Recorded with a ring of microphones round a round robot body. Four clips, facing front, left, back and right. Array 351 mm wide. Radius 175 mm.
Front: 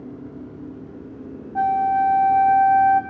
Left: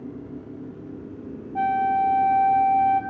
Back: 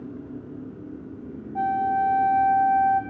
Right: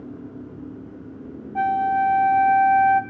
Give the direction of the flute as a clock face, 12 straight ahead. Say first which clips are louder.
Right 1 dB, front 4 dB; 1 o'clock.